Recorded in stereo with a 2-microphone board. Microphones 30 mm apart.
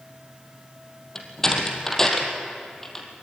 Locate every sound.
1.1 s a door slam: 15° left (ahead or behind), 3.5 m